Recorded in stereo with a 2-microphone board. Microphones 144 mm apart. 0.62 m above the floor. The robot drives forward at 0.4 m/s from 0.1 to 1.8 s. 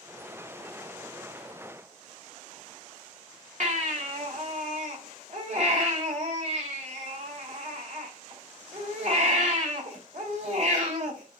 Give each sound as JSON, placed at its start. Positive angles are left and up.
{"t": 3.6, "sound": "a baby crying", "side_deg": -55, "distance_m": 2.0}